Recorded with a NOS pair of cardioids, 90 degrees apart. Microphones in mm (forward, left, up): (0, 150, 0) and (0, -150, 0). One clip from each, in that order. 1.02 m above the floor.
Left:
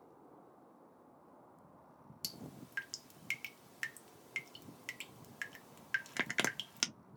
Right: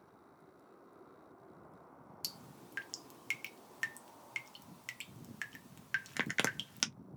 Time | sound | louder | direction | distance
2.2 | dripping | even | 5° right | 0.5 m